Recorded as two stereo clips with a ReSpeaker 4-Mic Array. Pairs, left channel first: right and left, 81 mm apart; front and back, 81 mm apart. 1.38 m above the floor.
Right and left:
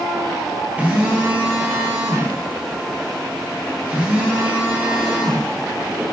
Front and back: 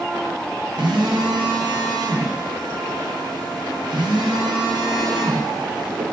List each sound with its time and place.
0.8 s a phone buzzing: 160° left, 0.8 m